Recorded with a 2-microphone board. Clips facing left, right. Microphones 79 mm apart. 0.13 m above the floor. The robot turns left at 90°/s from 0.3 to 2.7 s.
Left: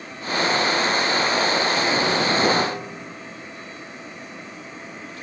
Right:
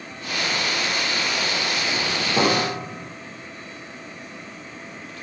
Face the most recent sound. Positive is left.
turn(degrees=-75)